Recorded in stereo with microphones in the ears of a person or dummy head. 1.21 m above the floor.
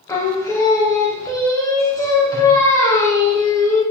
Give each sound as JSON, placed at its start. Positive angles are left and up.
{"t": 0.1, "sound": "singing", "side_deg": 15, "distance_m": 0.9}